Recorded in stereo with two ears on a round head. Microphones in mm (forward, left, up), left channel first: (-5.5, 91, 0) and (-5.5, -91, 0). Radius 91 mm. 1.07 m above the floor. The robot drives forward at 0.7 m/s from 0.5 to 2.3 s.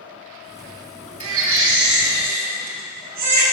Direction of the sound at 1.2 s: 75° right (ahead or behind).